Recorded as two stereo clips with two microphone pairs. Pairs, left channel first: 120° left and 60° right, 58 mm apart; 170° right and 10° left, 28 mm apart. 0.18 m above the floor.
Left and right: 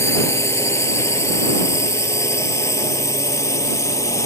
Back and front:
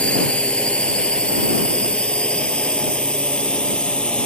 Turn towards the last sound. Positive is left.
turn(degrees=140)